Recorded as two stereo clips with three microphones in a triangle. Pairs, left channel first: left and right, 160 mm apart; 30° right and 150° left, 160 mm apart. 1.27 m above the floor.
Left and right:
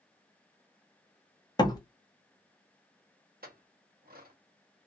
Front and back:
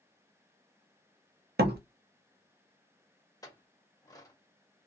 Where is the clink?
100° right, 0.9 m.